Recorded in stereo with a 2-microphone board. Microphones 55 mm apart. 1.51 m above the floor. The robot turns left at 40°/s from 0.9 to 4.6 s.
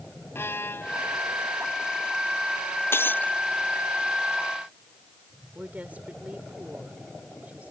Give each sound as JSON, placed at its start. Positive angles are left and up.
{"t": 0.3, "sound": "a violin", "side_deg": 50}
{"t": 2.9, "sound": "breaking glass", "side_deg": 50}
{"t": 5.5, "sound": "a woman speaking", "side_deg": -30}